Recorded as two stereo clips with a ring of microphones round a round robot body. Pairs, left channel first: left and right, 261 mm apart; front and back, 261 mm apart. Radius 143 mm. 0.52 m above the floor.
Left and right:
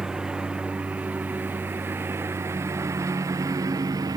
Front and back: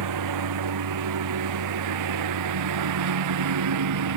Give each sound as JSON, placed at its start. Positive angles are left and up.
{"t": 0.0, "sound": "a lawn mower", "azimuth_deg": 180}